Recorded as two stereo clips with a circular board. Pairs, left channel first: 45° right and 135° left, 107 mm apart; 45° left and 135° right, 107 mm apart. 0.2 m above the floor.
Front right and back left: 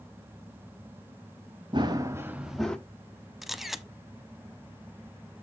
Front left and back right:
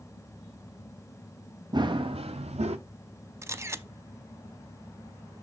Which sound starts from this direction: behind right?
A camera shutter, at 3.4 s.